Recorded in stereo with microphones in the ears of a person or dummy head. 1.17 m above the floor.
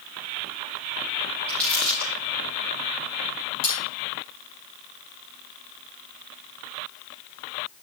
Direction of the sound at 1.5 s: Centre (ahead or behind).